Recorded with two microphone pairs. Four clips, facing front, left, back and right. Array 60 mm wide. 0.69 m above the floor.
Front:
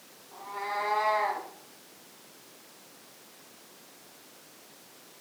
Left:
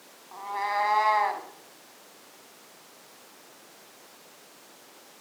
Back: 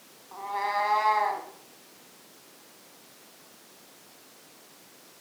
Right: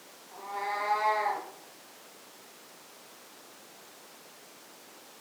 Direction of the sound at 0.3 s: 130° left.